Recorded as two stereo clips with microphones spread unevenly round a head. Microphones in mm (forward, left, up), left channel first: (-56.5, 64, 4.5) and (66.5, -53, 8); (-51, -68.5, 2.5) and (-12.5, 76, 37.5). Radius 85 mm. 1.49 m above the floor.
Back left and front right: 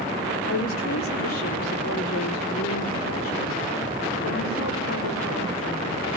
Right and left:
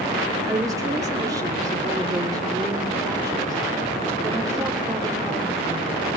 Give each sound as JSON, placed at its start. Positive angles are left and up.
{"t": 0.5, "sound": "a woman speaking", "azimuth_deg": 145, "distance_m": 5.0}